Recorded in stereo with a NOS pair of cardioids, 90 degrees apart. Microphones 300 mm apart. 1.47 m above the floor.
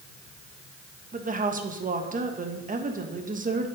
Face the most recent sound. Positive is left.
turn(degrees=-25)